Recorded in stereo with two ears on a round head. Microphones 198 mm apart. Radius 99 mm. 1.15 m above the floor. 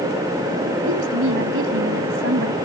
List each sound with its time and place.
0.9 s a woman speaking: 65° right (ahead or behind)